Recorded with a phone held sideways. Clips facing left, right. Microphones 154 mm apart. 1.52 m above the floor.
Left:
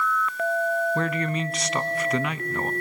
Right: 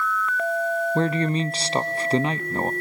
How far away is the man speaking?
About 0.6 m.